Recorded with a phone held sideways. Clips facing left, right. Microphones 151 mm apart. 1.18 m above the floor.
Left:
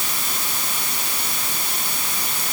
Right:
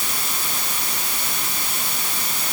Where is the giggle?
I don't hear a giggle.